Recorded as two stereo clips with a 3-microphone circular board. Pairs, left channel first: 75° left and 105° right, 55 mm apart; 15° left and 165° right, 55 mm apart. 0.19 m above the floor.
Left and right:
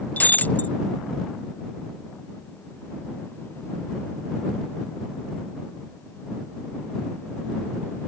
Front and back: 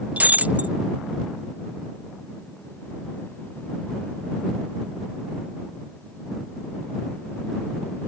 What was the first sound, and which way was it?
Breaking glass, 135° left.